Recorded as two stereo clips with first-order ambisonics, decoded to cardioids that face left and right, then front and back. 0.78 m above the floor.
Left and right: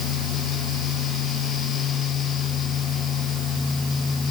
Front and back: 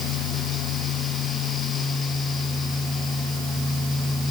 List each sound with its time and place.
Only background noise.